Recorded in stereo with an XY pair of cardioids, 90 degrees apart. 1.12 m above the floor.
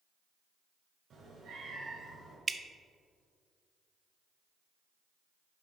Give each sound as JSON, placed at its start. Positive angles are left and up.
{"t": 1.1, "sound": "a cat meowing", "azimuth_deg": -60, "distance_m": 3.0}
{"t": 2.5, "sound": "dripping", "azimuth_deg": -35, "distance_m": 0.5}